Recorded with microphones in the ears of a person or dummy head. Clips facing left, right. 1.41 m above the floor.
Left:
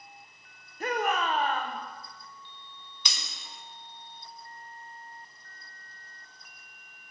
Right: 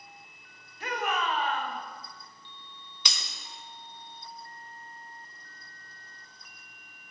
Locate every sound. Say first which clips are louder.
0.8 s a shout: left 3 dB; 35° left (ahead or behind), 0.7 m
3.0 s breaking glass: right 1 dB; 55° right (ahead or behind), 0.8 m